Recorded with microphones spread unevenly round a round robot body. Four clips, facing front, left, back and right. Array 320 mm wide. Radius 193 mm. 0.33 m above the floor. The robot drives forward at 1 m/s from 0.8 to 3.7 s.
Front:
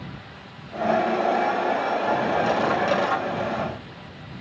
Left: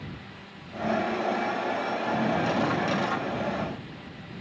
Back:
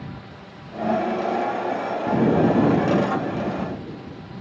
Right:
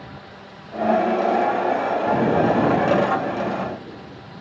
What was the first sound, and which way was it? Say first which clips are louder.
An explosion: right 8 dB, back 7 dB; 160° right.